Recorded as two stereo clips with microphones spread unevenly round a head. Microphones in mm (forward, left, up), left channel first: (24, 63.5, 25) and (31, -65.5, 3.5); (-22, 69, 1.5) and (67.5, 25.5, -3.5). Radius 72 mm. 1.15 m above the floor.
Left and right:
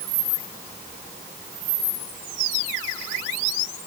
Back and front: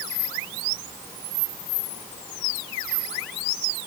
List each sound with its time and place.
Only background noise.